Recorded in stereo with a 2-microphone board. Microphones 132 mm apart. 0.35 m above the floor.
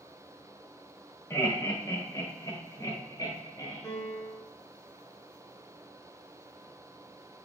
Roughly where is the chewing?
I don't hear chewing.